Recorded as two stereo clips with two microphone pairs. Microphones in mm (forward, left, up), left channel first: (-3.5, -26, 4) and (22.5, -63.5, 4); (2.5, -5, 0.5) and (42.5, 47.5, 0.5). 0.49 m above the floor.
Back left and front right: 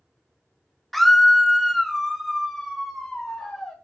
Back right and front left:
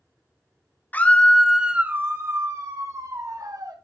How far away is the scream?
About 0.8 m.